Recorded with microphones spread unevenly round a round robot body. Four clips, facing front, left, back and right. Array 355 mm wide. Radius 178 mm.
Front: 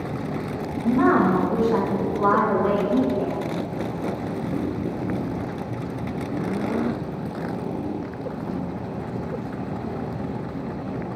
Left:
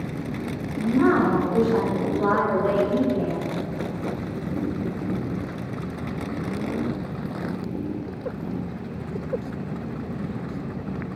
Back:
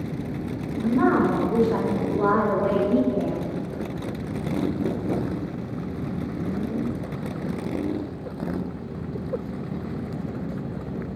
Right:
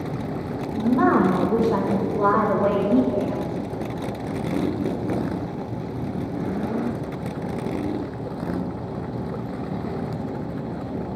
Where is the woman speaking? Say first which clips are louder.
Right 1 dB, front 2 dB; 70° right, 3 m; by 3.5 s 120° right, 3.5 m.